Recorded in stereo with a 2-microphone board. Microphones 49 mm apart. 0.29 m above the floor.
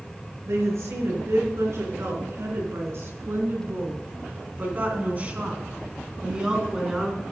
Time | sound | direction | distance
0.5 | a woman speaking | 75° right (ahead or behind) | 4 m